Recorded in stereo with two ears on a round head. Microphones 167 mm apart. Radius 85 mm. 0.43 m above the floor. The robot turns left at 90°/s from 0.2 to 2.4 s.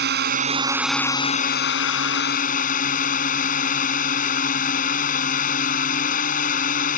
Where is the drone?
115° right; by 7.0 s 45° left.